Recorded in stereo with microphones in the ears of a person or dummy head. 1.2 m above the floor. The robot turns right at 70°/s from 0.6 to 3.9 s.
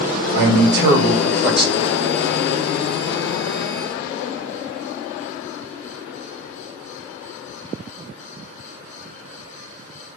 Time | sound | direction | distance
0.3 | a man speaking | 70° right | 1.5 m